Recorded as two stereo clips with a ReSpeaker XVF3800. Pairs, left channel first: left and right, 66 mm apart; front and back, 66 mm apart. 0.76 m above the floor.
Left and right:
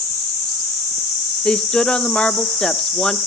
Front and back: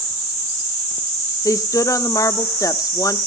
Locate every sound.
1.4 s a woman speaking: 15° left, 0.9 m